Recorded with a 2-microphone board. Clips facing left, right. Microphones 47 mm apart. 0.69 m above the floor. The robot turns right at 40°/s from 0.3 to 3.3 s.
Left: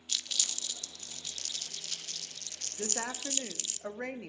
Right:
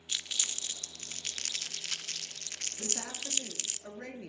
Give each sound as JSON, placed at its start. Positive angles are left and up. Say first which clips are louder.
{"t": 0.1, "sound": "crumpling", "louder": "even", "side_deg": -25, "distance_m": 0.7}
{"t": 2.8, "sound": "a woman speaking", "louder": "left 5 dB", "side_deg": 45, "distance_m": 1.2}